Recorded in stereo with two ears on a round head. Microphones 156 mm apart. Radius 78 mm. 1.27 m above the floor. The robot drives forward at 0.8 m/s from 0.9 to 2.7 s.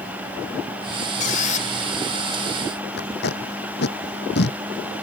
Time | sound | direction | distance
1.2 | a squeak | 50° left (ahead or behind) | ?
3.0 | tape being pulled | 70° left (ahead or behind) | ?